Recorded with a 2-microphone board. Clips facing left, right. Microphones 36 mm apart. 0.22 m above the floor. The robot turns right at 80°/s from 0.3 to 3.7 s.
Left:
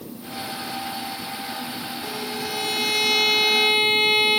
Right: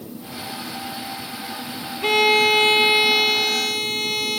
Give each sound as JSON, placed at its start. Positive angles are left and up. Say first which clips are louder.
{"t": 2.0, "sound": "a violin", "louder": "right 17 dB", "azimuth_deg": -105}